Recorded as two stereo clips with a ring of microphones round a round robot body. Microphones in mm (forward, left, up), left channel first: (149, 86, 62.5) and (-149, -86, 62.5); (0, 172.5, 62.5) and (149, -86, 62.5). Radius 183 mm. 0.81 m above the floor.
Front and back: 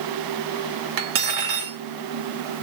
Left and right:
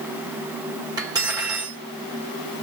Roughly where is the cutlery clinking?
Behind right.